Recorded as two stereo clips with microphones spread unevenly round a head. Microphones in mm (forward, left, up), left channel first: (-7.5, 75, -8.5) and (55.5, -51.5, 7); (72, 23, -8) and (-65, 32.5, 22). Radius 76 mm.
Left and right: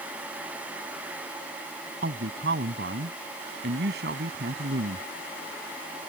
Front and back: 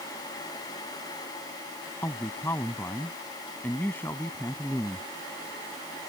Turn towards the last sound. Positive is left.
turn(degrees=-85)